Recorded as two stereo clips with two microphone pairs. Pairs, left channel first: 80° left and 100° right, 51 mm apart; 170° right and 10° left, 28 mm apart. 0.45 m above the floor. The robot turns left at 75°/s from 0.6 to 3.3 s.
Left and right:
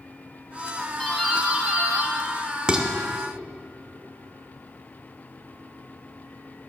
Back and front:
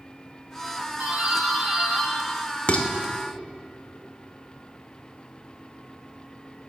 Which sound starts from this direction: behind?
Dishes clattering, at 2.7 s.